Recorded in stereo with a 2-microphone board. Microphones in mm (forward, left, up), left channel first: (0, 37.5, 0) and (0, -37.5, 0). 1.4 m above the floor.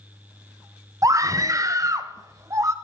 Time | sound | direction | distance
1.0 | a scream | 45° right (ahead or behind) | 0.5 m